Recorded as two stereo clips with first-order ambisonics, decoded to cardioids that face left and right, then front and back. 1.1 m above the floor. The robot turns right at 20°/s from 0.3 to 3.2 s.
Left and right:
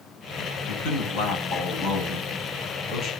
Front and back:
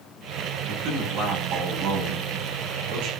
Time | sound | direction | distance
0.7 | a man speaking | 120° left | 9.5 m